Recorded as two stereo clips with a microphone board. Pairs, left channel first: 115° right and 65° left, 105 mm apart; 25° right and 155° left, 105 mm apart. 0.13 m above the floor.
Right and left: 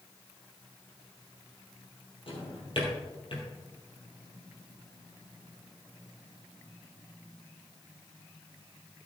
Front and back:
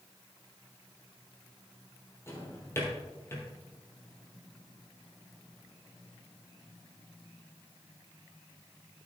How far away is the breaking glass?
No breaking glass in this recording.